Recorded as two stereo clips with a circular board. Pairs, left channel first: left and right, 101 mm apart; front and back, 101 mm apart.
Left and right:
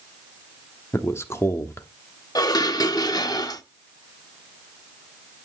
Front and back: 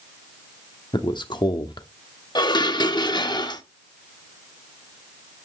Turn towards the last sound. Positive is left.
turn(degrees=40)